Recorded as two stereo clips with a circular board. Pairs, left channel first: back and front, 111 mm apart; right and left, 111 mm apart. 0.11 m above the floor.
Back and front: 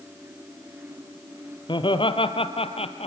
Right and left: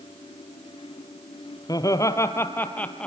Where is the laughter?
140° right, 2.5 m; by 3.1 s 170° right, 2.5 m.